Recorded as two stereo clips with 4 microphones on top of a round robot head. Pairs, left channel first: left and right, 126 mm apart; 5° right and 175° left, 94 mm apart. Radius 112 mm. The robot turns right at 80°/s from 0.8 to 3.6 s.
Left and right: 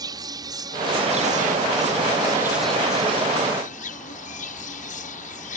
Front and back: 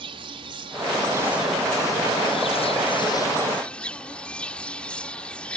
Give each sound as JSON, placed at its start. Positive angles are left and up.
{"t": 0.0, "sound": "an insect", "azimuth_deg": -150}